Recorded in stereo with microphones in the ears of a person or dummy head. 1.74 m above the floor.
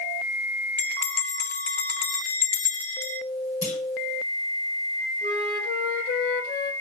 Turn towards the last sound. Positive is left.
turn(degrees=45)  # may be behind; listen again after turning